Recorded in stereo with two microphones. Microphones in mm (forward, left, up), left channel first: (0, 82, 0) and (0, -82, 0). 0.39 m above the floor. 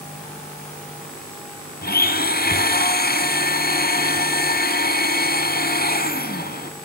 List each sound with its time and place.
1.8 s a blender: 75° left (ahead or behind), 1.8 m